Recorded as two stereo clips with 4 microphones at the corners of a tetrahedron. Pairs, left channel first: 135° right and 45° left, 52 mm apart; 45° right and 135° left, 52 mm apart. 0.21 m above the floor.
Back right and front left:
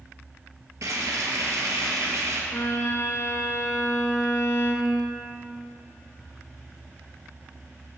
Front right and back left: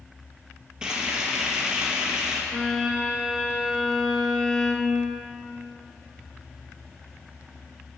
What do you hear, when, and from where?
0.8 s frying: 60° left, 1.1 m
2.5 s a violin: 125° right, 0.8 m